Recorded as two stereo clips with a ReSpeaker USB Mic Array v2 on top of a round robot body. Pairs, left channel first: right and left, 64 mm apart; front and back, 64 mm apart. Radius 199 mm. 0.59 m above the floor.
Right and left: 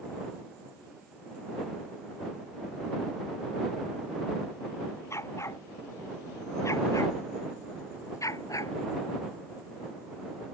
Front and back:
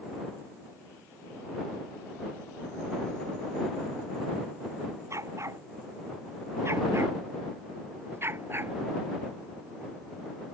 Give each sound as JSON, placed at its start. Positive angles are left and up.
{"t": 5.1, "sound": "a dog barking", "azimuth_deg": -135}